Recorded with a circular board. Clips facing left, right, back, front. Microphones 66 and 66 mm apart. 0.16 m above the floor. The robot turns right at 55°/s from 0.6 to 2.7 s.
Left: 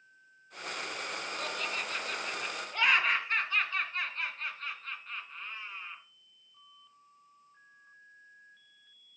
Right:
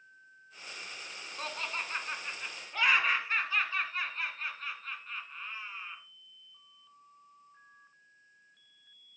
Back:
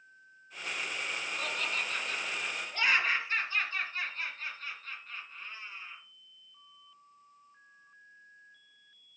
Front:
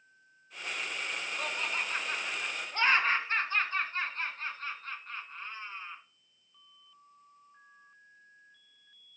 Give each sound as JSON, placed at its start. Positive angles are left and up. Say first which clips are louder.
{"t": 1.4, "sound": "laughter", "louder": "right 1 dB, front 1 dB", "azimuth_deg": -75, "distance_m": 1.9}